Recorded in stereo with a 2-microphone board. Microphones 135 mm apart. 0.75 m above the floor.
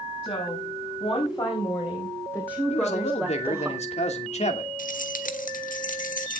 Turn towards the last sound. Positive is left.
turn(degrees=80)